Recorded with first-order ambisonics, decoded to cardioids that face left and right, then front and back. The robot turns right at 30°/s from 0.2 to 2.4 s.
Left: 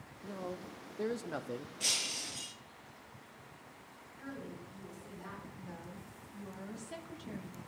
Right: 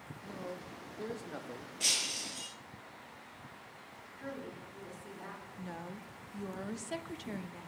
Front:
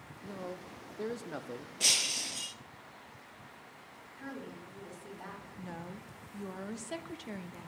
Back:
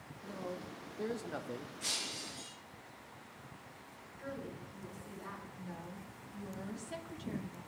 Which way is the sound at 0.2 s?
45° left.